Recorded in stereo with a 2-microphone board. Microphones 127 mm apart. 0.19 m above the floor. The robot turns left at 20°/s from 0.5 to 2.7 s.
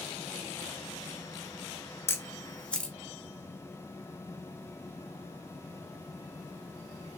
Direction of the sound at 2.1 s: 20° left (ahead or behind).